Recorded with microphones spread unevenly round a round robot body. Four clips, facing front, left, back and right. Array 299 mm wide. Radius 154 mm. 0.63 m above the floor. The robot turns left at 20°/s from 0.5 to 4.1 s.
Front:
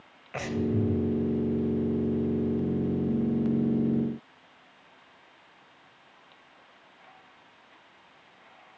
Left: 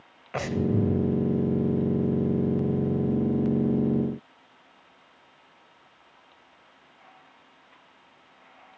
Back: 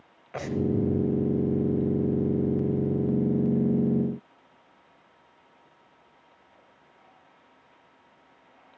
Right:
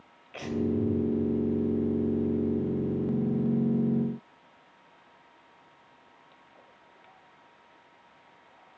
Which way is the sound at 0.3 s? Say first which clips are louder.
Left 3 dB, back 2 dB; 80° left.